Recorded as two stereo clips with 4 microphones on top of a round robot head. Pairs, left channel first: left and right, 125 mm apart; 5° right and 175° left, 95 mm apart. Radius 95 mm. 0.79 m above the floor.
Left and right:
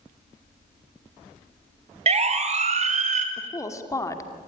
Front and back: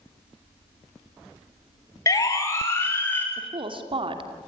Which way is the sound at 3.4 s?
155° left.